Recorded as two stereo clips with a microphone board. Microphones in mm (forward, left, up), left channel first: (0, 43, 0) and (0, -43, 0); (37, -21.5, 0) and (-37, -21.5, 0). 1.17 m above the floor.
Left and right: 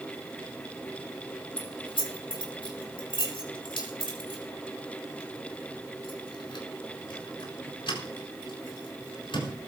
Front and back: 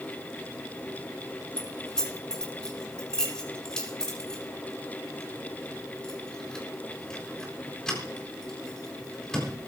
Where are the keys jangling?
80° left, 4 m.